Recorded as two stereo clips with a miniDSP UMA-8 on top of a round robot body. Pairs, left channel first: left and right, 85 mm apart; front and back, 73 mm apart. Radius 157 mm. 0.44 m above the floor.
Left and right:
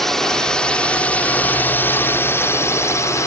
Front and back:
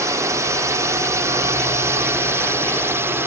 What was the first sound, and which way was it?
A drone, 175° left.